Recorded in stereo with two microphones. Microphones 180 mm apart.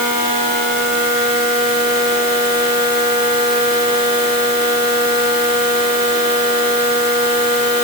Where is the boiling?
No boiling in this recording.